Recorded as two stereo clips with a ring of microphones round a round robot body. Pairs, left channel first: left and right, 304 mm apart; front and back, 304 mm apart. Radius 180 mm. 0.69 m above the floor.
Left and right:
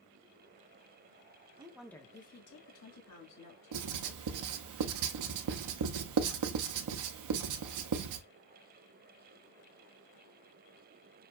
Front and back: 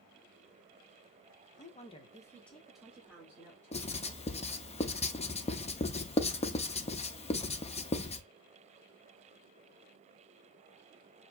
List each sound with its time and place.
1.6 s a woman speaking: 35° right, 0.8 m; by 4.7 s 105° left, 2.5 m
3.7 s writing: 70° right, 0.6 m